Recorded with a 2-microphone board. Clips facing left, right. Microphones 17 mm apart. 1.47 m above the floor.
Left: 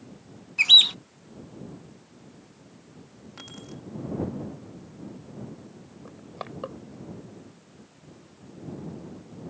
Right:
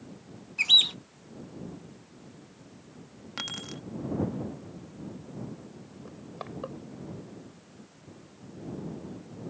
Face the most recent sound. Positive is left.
turn(degrees=15)  # may be behind; listen again after turning